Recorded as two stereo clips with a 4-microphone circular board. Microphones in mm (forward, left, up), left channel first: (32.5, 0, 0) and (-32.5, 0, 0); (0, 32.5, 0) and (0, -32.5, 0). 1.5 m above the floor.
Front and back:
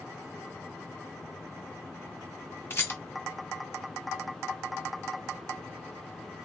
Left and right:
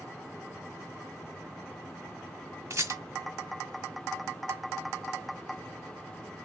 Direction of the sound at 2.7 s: 55° right.